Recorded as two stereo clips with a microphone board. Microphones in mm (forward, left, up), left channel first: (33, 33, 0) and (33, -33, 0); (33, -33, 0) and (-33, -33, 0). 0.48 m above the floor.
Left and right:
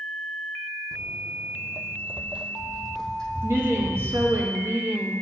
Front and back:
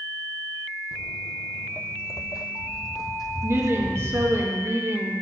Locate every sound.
0.9 s footsteps: 100° right, 1.2 m; by 4.4 s 20° left, 2.5 m
3.4 s a woman speaking: 135° right, 4 m